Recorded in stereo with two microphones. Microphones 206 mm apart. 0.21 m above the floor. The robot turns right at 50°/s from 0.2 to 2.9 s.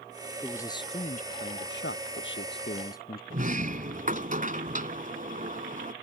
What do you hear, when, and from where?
0.4 s a man speaking: 5° left; by 3.2 s 130° left
3.3 s a sliding door: 45° right (ahead or behind)